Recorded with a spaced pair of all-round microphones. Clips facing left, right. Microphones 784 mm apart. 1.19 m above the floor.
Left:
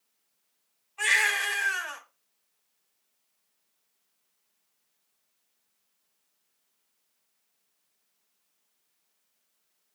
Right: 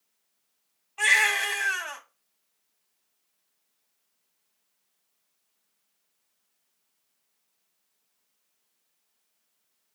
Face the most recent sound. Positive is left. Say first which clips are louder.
# right 3 dB
turn(degrees=-65)  # may be behind; listen again after turning